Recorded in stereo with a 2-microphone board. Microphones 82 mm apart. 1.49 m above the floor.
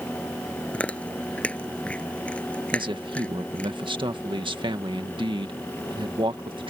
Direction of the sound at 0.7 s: 15° left (ahead or behind).